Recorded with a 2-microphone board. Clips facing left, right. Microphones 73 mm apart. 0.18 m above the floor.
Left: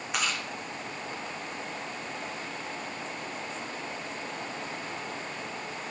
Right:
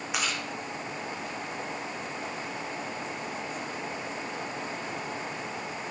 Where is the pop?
No pop in this recording.